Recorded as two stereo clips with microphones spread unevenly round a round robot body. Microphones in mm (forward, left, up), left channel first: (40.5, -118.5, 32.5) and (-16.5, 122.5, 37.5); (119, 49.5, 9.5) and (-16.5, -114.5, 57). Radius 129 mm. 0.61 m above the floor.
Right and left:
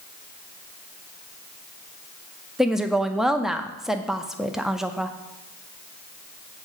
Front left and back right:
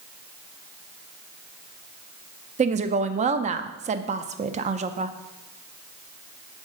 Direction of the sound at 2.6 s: 170° right.